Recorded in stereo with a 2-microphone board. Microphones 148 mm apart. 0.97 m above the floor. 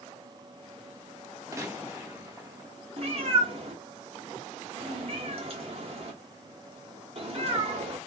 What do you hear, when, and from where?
1.5 s a gunshot: 20° right (ahead or behind), 1.0 m
3.0 s a cat meowing: 45° right (ahead or behind), 1.0 m